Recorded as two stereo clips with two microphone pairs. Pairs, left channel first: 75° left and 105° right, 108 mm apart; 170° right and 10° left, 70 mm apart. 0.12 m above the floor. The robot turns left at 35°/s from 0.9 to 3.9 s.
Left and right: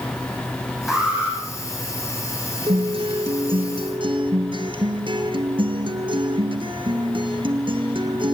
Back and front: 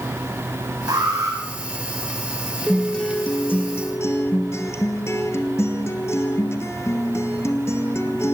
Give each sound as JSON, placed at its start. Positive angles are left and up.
{"t": 0.9, "sound": "an alarm", "azimuth_deg": -20, "distance_m": 7.5}
{"t": 2.7, "sound": "a guitar", "azimuth_deg": -85, "distance_m": 1.7}